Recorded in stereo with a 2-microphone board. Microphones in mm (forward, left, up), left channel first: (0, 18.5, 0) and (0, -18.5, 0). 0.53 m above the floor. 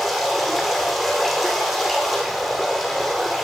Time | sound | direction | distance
0.0 | running water | centre (ahead or behind) | 9.5 m